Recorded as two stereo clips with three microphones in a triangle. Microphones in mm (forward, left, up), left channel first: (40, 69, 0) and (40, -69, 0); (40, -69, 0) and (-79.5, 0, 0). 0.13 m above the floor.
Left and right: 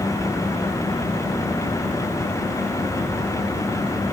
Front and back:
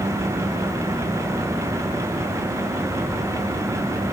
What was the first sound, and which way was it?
Only background noise.